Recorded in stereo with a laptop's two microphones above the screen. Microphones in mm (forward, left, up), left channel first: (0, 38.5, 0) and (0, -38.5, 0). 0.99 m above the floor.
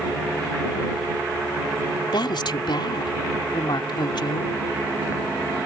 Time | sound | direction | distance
2.1 | a woman speaking | 80° left | ?